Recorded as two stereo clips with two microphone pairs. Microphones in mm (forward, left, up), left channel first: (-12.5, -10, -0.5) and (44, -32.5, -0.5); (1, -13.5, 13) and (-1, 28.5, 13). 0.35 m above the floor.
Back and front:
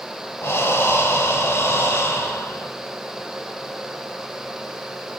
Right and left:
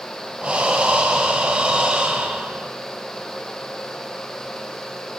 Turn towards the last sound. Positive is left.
turn(degrees=140)